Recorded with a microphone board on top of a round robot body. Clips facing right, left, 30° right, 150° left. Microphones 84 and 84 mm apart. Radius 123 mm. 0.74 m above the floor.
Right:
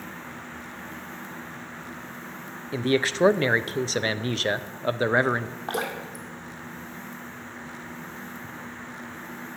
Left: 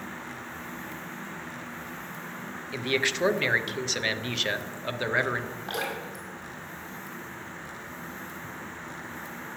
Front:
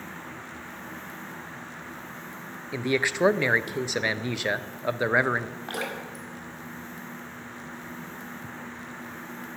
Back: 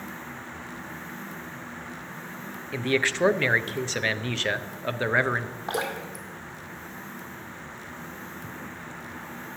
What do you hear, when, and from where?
2.7 s a man speaking: 95° right, 0.6 m
5.7 s dripping: 140° right, 1.8 m